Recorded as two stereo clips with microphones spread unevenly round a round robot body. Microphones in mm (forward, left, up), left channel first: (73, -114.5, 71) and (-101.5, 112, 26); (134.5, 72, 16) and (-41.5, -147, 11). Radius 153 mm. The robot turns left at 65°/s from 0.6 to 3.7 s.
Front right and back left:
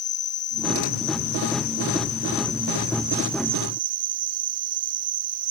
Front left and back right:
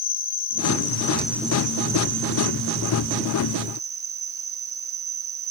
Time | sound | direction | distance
0.0 | an insect | 5° left | ?